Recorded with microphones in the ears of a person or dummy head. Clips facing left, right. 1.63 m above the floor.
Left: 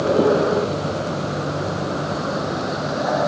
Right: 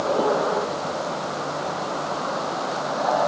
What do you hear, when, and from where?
0.0 s a vehicle: 35° left (ahead or behind); by 3.3 s 30° left (ahead or behind)